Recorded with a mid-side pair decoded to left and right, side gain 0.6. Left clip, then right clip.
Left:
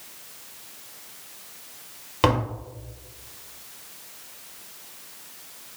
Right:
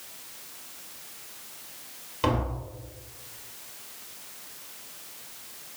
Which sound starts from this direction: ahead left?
Tapping, at 2.2 s.